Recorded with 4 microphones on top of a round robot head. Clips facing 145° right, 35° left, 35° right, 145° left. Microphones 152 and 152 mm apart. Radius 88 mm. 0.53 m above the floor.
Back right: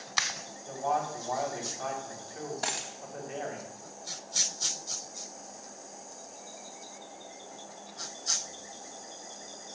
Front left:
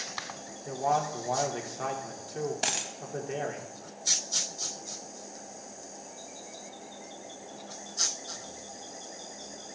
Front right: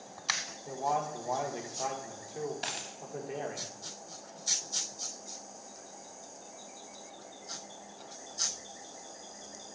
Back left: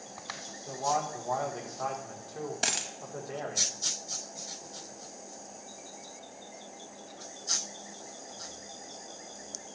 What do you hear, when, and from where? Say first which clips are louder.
0.7 s a man speaking: front left 2 dB, back left 1 dB; 35° left, 1.8 m
2.6 s a dropped coin: front left 2 dB, back left 4 dB; 105° left, 0.6 m